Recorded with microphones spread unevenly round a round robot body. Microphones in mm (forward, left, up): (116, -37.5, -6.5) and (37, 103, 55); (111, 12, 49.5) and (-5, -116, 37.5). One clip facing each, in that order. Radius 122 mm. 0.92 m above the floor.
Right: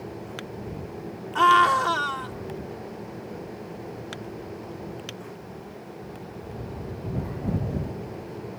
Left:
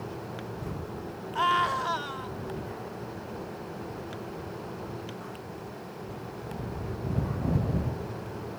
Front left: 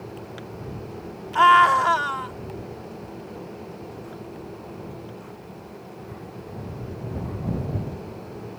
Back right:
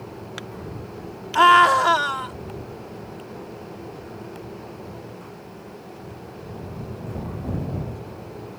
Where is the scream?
85° right.